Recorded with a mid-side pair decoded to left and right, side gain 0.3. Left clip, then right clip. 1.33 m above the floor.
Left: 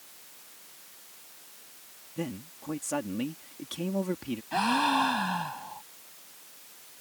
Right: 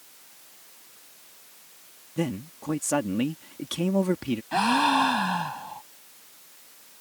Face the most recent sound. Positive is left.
turn(degrees=-45)